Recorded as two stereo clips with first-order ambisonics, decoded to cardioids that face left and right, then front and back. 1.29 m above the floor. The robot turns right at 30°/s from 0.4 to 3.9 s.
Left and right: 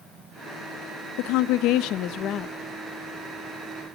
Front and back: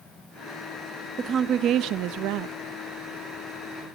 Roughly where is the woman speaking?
Left.